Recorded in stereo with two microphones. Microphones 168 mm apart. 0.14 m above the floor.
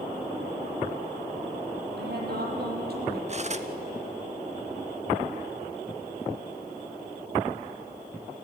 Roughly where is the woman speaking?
Right.